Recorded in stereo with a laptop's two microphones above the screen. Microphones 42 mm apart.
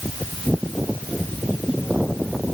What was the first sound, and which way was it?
Only background noise.